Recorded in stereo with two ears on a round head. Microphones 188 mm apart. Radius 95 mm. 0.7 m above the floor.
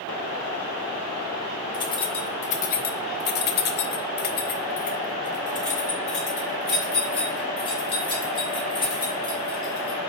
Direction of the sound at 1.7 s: 20° left (ahead or behind).